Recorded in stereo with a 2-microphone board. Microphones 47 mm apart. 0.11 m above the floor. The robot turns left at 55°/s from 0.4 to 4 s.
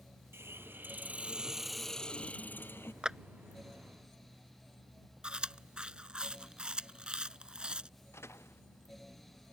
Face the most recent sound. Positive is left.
turn(degrees=70)  # may be behind; listen again after turning